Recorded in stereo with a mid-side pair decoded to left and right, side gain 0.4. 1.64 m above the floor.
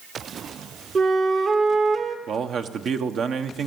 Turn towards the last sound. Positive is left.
turn(degrees=-65)